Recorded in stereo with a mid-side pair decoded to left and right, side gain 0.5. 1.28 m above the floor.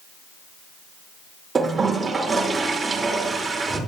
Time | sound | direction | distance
1.6 | a toilet flushing | 30° right | 2.5 m